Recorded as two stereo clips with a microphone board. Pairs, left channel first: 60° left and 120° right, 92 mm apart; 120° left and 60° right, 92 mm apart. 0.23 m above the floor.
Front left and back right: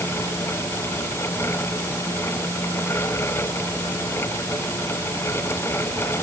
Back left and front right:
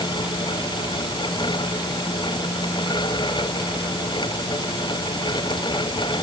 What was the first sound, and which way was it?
Only background noise.